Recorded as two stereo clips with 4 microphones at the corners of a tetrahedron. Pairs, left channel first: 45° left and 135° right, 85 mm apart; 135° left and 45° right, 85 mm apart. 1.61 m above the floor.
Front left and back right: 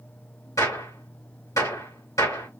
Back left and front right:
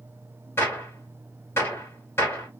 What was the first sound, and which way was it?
A gunshot, 80° left.